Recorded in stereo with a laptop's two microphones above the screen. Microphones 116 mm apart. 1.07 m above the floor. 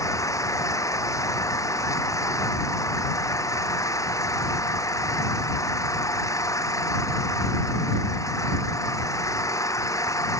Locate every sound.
0.0 s an engine running: 25° left (ahead or behind)